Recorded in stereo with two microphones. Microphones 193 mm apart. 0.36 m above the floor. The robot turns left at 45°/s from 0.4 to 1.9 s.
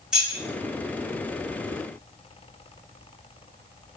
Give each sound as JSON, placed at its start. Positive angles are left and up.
{"t": 0.1, "sound": "keys jangling", "side_deg": -5, "distance_m": 0.8}